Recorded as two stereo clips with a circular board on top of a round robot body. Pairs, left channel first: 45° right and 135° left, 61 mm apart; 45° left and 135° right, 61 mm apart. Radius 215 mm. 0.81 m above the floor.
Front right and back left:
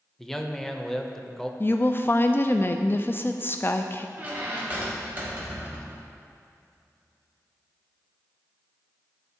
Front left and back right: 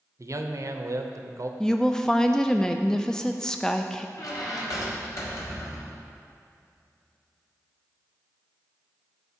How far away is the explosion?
I don't hear an explosion.